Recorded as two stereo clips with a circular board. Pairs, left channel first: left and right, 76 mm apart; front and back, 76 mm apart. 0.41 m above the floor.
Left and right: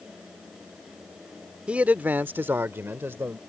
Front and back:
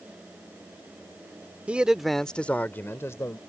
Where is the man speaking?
140° right; by 3.4 s 40° right.